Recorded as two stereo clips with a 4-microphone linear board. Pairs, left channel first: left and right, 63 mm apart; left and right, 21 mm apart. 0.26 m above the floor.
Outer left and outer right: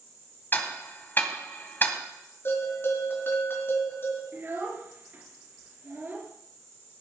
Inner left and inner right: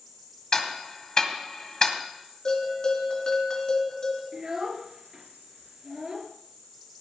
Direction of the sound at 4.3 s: 35° right (ahead or behind).